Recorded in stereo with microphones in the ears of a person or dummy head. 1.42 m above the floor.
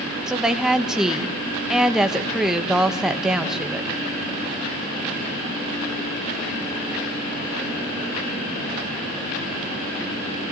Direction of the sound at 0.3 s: Centre (ahead or behind).